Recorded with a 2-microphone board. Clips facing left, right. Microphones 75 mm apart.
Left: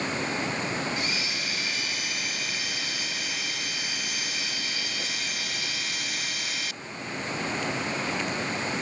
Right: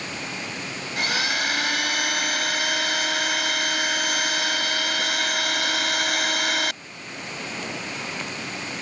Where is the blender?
70° right (ahead or behind).